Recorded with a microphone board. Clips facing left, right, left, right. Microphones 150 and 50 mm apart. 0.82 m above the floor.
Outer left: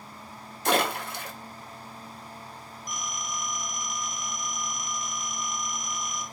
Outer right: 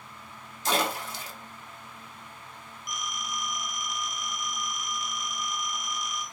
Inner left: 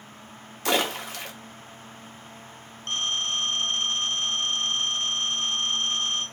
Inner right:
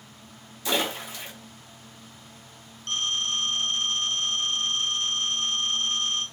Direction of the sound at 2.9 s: 35° left (ahead or behind).